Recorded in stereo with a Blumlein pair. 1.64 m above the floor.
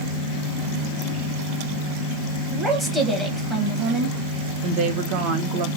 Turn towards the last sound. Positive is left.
turn(degrees=-40)